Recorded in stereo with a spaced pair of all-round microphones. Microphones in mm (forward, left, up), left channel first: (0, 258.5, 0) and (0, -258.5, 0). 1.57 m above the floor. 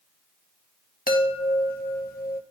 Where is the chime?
15° left (ahead or behind), 1.2 m.